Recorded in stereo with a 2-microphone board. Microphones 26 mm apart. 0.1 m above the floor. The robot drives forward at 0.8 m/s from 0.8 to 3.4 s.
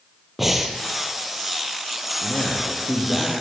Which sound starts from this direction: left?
A man speaking, at 2.2 s.